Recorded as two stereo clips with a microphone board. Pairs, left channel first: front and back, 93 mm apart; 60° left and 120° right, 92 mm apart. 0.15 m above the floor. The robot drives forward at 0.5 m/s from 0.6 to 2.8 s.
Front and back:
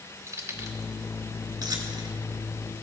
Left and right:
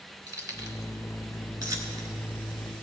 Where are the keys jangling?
145° right, 1.4 m; by 2.1 s 160° right, 2.0 m.